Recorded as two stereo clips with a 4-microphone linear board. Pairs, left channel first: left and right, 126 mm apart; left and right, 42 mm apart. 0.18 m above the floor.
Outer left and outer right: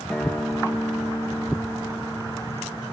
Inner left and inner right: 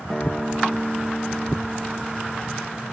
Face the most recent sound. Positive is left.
turn(degrees=10)  # may be behind; listen again after turning